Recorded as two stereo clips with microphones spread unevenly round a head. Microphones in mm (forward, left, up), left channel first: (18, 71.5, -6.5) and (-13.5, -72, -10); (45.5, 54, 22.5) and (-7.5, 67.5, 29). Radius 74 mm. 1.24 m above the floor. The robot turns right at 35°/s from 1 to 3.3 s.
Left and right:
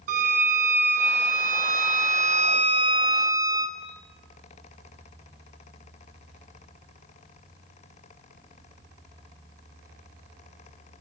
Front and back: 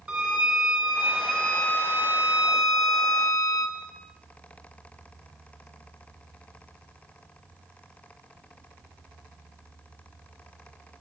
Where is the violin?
120° right, 1.2 m; by 3.8 s 40° right, 1.2 m.